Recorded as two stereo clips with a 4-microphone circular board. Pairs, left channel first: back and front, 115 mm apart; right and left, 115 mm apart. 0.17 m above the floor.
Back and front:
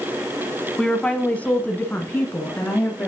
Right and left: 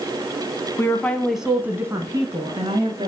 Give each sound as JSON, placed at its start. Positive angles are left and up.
{"t": 0.8, "sound": "a woman speaking", "azimuth_deg": -105, "distance_m": 1.1}